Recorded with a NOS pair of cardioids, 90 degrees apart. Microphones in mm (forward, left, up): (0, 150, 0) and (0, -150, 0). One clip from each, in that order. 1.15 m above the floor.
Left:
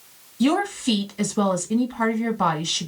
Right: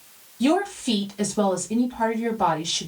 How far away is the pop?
No pop in this recording.